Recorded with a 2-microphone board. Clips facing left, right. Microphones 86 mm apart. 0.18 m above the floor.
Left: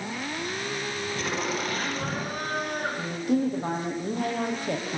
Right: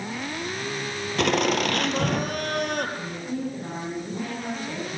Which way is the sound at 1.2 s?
70° right (ahead or behind).